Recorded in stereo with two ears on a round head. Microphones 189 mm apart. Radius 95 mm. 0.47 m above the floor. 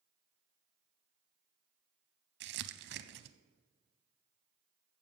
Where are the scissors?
No scissors in this recording.